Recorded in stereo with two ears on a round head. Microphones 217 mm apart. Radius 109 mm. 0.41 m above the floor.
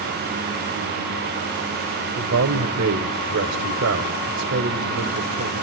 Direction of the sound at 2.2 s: 55° right (ahead or behind).